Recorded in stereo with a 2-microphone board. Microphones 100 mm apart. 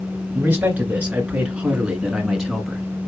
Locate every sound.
0.3 s a man speaking: 15° right (ahead or behind), 2.5 m; by 2.8 s centre (ahead or behind), 1.7 m